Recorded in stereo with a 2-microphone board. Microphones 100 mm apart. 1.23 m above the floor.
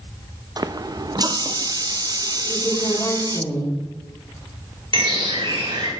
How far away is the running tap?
About 0.5 m.